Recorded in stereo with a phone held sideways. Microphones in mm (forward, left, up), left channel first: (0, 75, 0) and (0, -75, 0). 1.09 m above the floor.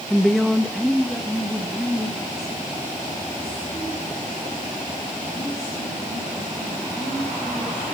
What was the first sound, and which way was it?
A woman speaking, 5° left (ahead or behind).